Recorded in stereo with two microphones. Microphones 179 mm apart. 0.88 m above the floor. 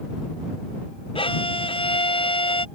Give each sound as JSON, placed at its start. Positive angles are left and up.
{"t": 1.1, "sound": "a violin", "side_deg": 30}